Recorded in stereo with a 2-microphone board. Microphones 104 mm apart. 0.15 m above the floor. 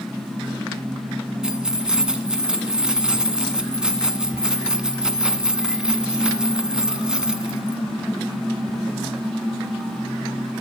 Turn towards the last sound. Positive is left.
turn(degrees=-5)  # may be behind; listen again after turning